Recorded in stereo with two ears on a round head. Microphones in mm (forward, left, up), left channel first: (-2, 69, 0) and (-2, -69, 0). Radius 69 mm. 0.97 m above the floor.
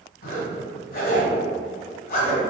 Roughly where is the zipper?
Left.